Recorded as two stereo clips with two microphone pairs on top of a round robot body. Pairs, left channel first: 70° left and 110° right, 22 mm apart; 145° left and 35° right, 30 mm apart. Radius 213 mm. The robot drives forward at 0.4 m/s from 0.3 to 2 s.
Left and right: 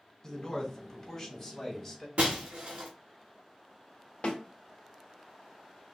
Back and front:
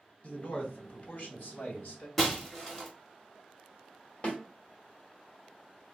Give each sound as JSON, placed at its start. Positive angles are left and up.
{"t": 0.2, "sound": "a man speaking", "azimuth_deg": 120, "distance_m": 1.9}
{"t": 2.2, "sound": "breaking glass", "azimuth_deg": -130, "distance_m": 0.7}
{"t": 4.2, "sound": "a snare drum", "azimuth_deg": 110, "distance_m": 1.4}